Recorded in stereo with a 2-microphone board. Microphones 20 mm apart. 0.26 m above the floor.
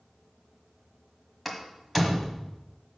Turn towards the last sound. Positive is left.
turn(degrees=0)  # may be behind; listen again after turning